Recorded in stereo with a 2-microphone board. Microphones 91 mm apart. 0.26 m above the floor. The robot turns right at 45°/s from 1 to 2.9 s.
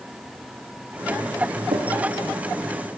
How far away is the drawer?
About 4.5 m.